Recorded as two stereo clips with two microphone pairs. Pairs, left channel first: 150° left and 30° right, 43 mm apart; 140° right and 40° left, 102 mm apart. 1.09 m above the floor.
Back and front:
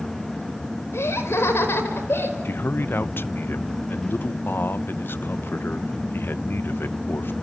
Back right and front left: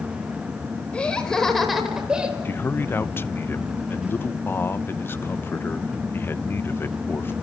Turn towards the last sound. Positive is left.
turn(degrees=160)